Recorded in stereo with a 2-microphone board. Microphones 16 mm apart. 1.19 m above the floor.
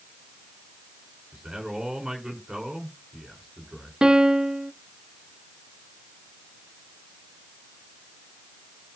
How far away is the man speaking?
About 5.5 m.